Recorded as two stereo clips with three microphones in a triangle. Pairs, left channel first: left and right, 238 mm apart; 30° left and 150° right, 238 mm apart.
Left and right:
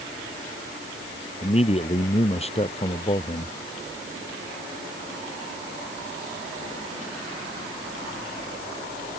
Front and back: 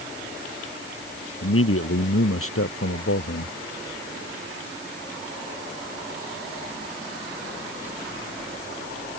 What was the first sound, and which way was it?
A man speaking, 30° left.